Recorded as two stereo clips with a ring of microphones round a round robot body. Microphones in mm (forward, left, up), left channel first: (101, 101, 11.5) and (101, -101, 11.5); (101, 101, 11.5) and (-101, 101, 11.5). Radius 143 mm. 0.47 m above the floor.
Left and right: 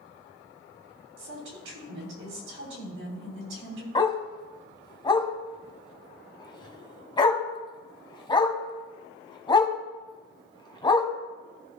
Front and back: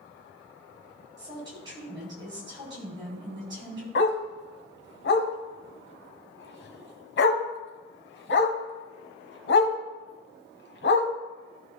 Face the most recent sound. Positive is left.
turn(degrees=20)